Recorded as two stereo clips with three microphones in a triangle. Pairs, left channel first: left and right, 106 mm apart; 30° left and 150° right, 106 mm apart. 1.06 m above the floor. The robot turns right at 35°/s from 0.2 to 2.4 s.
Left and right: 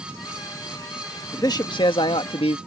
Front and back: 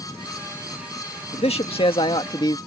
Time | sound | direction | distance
1.3 | a man speaking | 35° left | ?